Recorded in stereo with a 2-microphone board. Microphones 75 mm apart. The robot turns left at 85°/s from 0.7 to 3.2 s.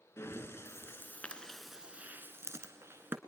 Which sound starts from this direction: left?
Breathing, at 0.2 s.